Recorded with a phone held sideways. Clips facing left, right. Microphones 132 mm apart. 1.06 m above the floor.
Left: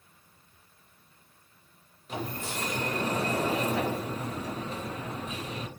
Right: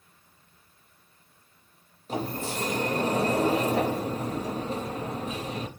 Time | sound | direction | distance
2.1 | a sliding door | 35° right (ahead or behind) | 0.6 m